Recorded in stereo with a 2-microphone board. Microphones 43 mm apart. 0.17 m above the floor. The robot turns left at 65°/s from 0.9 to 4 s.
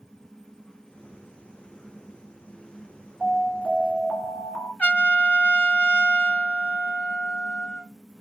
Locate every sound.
3.2 s an alarm: 165° right, 1.3 m; by 4.7 s 140° left, 1.3 m
4.8 s a trumpet: 35° left (ahead or behind), 1.3 m